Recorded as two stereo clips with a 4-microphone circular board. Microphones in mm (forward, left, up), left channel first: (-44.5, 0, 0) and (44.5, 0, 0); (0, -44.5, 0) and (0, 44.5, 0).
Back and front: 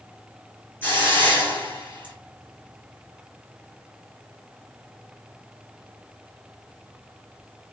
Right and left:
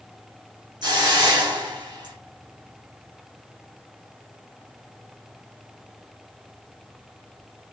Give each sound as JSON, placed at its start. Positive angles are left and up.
{"t": 0.8, "sound": "a hiss", "azimuth_deg": 115, "distance_m": 2.5}